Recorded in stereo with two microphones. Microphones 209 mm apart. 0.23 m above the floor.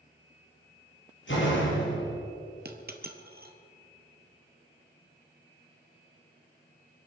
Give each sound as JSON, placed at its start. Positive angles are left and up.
{"t": 1.3, "sound": "a door slam", "side_deg": 65, "distance_m": 5.0}
{"t": 2.6, "sound": "a dropped coin", "side_deg": -50, "distance_m": 1.3}